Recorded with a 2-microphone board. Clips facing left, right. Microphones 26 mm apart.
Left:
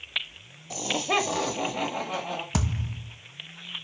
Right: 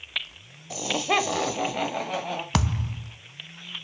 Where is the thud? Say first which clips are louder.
Right 4 dB; 60° right (ahead or behind), 0.7 m.